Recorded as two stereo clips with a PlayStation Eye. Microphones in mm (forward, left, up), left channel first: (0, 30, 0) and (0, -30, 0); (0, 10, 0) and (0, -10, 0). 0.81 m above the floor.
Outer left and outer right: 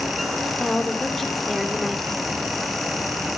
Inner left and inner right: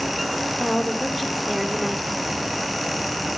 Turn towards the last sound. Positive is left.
turn(degrees=5)  # may be behind; listen again after turning